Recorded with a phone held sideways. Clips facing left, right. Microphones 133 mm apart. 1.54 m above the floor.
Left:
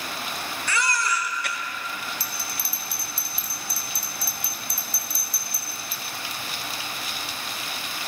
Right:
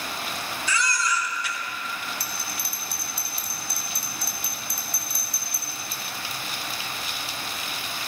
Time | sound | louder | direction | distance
0.7 | a baby crying | left 1 dB | 60° left (ahead or behind) | 1.6 m
2.2 | a bell | even | 60° right (ahead or behind) | 3.5 m